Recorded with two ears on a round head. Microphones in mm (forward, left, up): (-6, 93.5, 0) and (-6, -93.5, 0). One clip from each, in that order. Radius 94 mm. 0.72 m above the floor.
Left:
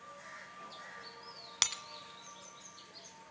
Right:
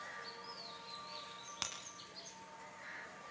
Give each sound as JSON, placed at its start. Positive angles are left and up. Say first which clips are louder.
{"t": 1.6, "sound": "breaking glass", "louder": "left 11 dB", "side_deg": 50, "distance_m": 1.7}